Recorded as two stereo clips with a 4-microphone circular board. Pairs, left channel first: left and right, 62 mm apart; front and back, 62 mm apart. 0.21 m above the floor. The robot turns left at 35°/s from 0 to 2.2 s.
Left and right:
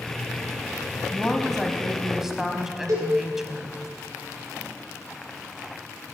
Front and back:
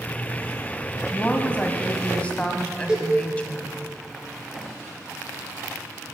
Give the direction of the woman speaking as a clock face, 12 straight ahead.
11 o'clock.